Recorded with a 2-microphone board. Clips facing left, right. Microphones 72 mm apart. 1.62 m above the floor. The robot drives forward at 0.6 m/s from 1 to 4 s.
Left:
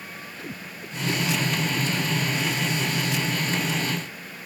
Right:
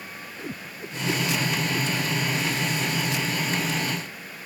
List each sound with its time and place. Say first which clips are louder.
0.4 s a whoosh: right 3 dB; 25° right (ahead or behind)